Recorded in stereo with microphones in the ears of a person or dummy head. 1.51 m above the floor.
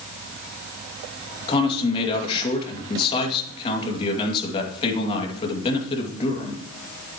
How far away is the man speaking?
About 2.5 m.